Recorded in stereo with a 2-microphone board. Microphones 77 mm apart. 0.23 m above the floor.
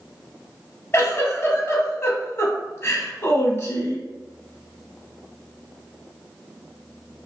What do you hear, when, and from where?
0.9 s a giggle: 35° left (ahead or behind), 0.8 m